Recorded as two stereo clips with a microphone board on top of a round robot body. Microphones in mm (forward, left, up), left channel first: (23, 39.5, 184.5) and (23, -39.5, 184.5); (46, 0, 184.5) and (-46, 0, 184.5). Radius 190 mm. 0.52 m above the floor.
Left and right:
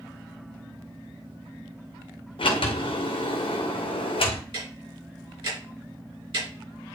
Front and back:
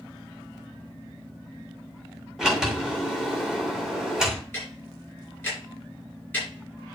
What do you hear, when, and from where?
2.4 s a sliding door: 95° left, 1.7 m
4.5 s ticking: 70° right, 4 m